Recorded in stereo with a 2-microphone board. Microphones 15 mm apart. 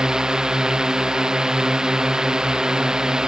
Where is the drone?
50° right (ahead or behind).